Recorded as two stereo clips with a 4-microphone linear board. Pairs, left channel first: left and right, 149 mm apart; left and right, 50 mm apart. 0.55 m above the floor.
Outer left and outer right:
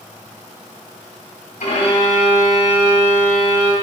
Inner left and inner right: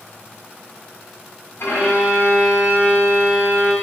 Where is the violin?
70° left (ahead or behind), 1.5 m.